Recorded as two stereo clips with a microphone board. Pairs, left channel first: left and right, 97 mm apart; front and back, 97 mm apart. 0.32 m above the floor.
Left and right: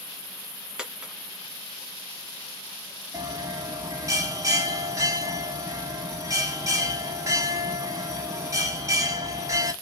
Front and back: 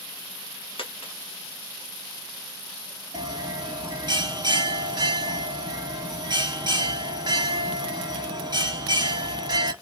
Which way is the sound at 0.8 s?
10° right.